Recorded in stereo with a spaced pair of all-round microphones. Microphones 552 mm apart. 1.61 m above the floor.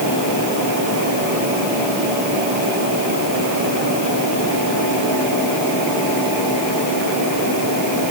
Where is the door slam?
No door slam in this recording.